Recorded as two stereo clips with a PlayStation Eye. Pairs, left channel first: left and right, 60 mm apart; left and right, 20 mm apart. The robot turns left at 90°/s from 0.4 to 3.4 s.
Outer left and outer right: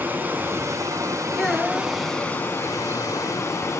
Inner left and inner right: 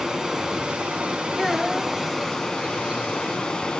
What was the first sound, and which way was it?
Running water, 35° right.